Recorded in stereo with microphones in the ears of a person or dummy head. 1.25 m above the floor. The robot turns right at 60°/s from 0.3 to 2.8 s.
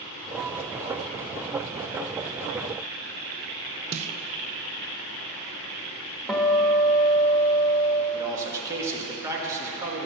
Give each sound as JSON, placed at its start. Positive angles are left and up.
{"t": 3.9, "sound": "a snare drum", "side_deg": -35, "distance_m": 0.6}
{"t": 6.3, "sound": "a guitar", "side_deg": 0, "distance_m": 1.5}
{"t": 8.1, "sound": "a man speaking", "side_deg": -20, "distance_m": 2.5}